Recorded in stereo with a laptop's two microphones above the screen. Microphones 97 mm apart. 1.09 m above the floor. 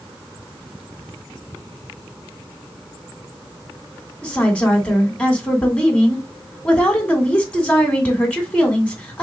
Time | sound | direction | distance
4.2 | a woman speaking | 15° left (ahead or behind) | 2.5 m